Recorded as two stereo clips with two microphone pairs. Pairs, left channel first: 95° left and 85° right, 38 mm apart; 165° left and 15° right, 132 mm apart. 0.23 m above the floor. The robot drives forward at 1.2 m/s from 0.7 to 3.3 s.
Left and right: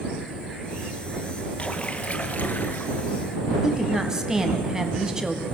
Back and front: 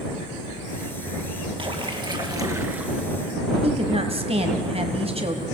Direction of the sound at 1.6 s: 35° left.